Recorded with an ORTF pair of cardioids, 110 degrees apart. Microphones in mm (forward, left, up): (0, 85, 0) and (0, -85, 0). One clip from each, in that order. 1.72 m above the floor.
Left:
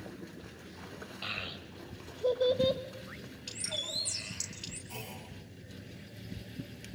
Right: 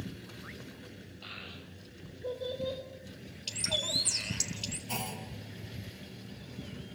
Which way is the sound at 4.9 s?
65° right.